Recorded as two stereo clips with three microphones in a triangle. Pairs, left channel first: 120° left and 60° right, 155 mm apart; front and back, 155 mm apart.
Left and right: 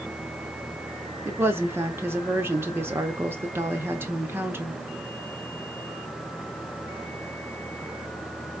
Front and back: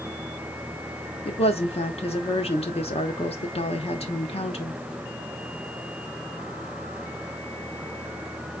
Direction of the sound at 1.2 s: 10° left.